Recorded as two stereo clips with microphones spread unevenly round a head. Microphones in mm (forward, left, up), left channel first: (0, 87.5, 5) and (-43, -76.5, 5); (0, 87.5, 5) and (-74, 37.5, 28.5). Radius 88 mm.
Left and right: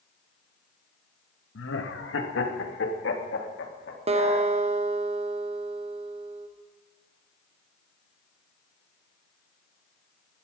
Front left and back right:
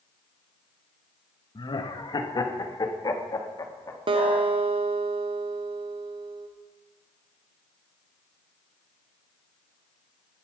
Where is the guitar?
160° right, 1.4 m.